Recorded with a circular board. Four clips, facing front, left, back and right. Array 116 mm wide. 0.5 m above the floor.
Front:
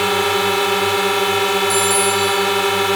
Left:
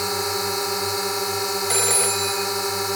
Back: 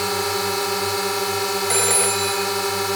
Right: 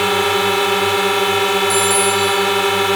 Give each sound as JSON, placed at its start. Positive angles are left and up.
{"t": 0.0, "sound": "a drone", "azimuth_deg": -60}
{"t": 1.7, "sound": "a phone ringing", "azimuth_deg": 155}